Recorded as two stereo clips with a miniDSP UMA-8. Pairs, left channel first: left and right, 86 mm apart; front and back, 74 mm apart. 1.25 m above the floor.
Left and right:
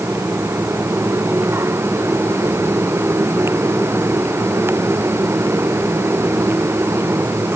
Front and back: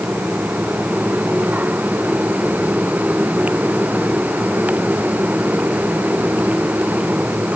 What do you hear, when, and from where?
Only background noise.